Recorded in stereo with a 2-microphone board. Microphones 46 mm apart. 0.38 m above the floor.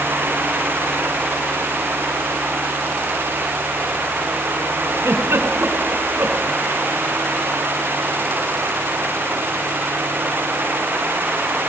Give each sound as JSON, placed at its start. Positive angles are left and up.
{"t": 5.0, "sound": "a giggle", "side_deg": -70, "distance_m": 2.5}